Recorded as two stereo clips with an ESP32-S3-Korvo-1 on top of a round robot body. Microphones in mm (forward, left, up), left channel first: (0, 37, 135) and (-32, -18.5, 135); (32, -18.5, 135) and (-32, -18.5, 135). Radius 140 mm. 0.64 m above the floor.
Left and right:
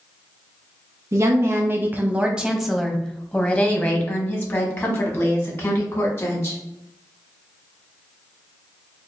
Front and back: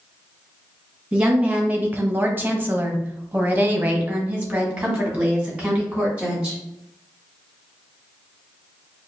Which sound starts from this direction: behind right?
A woman speaking, at 1.1 s.